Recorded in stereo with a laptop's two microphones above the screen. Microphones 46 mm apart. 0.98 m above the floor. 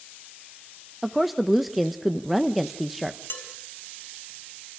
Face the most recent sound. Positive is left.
turn(degrees=55)  # may be behind; listen again after turning